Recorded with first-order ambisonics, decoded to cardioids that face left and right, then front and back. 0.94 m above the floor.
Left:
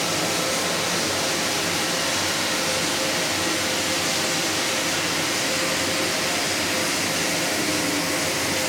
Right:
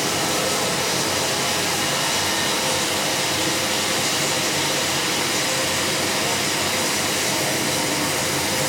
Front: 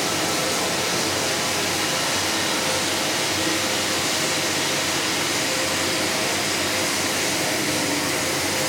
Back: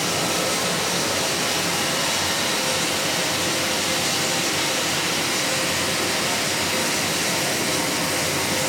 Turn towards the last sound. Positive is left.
turn(degrees=-75)